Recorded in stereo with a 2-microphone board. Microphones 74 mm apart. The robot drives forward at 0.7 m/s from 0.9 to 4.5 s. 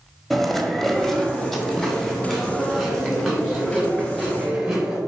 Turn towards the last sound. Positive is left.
turn(degrees=0)  # may be behind; listen again after turning